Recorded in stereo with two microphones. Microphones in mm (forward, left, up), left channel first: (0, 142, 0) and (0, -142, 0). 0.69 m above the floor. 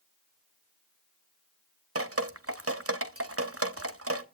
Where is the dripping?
55° right (ahead or behind), 0.9 m.